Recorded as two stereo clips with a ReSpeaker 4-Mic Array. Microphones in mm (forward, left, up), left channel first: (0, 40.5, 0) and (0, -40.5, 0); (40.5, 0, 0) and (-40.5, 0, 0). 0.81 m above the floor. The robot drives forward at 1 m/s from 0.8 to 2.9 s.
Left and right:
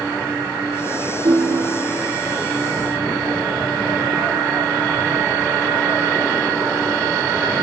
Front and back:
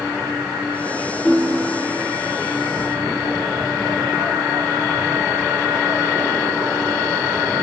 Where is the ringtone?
80° right, 1.7 m; by 2.0 s 105° right, 1.7 m.